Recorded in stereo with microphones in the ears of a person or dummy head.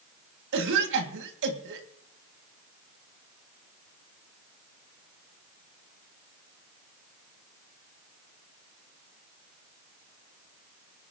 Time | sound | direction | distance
0.5 | a cough | 75° right (ahead or behind) | 1.9 m